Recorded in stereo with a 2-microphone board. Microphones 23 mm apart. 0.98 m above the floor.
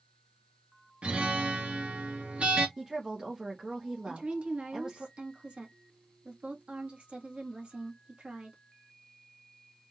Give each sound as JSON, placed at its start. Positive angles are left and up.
{"t": 1.0, "sound": "a guitar", "side_deg": -60, "distance_m": 1.9}
{"t": 2.8, "sound": "a woman speaking", "side_deg": -25, "distance_m": 1.2}
{"t": 4.1, "sound": "a woman speaking", "side_deg": -60, "distance_m": 1.8}